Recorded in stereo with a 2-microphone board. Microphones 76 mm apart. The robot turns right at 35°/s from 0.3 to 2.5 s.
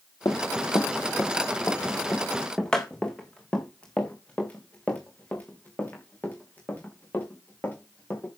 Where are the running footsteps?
40° left (ahead or behind), 1.6 m; by 8.3 s 25° left (ahead or behind), 6.5 m.